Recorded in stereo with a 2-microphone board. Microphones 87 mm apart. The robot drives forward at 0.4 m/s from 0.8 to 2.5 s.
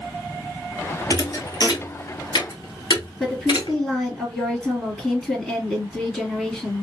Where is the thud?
45° left (ahead or behind), 1.0 m; by 3.8 s 60° left (ahead or behind), 0.8 m.